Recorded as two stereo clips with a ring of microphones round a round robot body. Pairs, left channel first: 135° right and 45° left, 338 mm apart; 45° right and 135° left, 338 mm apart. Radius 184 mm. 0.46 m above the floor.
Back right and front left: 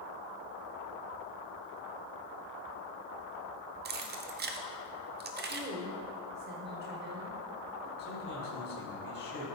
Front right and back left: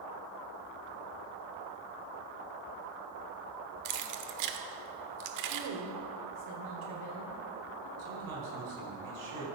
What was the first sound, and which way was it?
Keys jangling, 105° left.